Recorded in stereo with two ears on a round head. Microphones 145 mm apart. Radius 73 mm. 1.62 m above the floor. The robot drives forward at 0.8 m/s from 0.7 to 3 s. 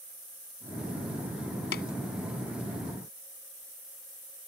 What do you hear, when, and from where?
1.7 s tapping: 70° left (ahead or behind)